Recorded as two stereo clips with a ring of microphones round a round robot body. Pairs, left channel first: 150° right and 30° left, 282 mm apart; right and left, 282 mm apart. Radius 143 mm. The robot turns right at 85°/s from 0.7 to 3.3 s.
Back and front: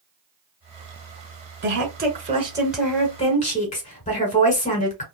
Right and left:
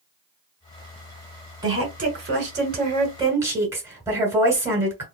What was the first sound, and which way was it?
A woman speaking, 20° left.